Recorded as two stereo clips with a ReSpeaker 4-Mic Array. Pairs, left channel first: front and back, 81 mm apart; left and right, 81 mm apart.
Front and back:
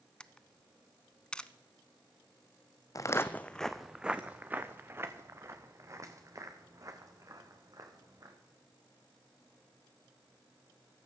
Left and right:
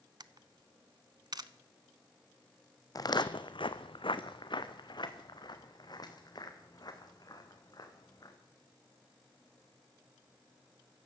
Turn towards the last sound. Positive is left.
turn(degrees=135)